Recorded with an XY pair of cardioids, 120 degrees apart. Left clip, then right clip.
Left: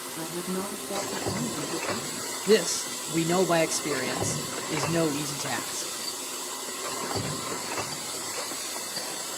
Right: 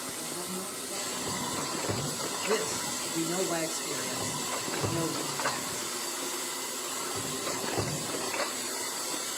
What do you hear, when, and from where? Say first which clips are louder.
0.2 s a woman speaking: left 4 dB; 65° left, 2.5 m
2.5 s a man speaking: left 9 dB; 60° left, 1.4 m